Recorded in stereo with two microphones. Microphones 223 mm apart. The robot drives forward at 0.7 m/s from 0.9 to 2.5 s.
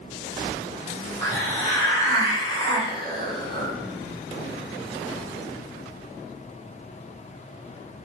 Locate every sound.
1.2 s a hiss: 15° left (ahead or behind), 1.5 m; by 3.7 s 20° left (ahead or behind), 1.0 m